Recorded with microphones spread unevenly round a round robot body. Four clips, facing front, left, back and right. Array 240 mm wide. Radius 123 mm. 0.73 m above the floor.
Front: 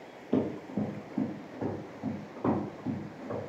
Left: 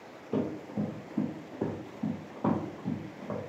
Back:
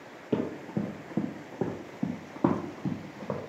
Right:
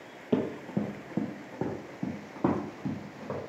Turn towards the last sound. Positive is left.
turn(degrees=-170)